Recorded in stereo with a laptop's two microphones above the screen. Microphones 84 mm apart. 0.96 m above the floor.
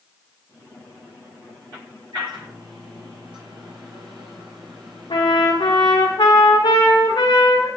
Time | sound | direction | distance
2.1 | a microwave | 70° right (ahead or behind) | 4.5 m
5.1 | a trumpet | 85° left | 2.0 m